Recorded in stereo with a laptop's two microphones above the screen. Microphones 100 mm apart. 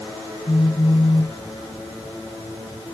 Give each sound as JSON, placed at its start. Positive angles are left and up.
{"t": 0.5, "sound": "a phone buzzing", "side_deg": 60}